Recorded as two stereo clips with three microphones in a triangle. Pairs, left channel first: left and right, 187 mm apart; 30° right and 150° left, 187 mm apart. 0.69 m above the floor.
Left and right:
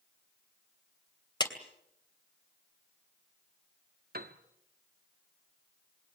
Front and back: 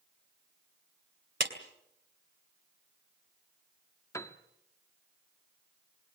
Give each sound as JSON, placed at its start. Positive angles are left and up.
{"t": 1.4, "sound": "a clap", "azimuth_deg": 155, "distance_m": 2.5}
{"t": 4.1, "sound": "a piano", "azimuth_deg": -100, "distance_m": 1.4}